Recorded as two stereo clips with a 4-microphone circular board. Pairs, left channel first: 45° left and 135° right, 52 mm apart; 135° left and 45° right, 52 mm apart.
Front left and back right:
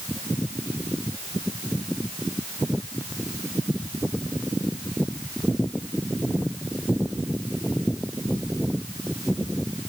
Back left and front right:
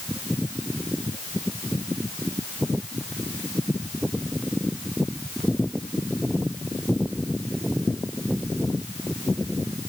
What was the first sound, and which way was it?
Only background noise.